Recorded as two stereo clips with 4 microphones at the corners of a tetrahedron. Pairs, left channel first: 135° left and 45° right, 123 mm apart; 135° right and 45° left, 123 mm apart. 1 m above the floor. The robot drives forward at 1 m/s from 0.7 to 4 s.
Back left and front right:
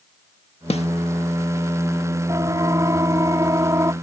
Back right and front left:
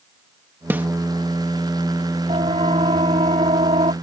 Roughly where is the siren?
Ahead.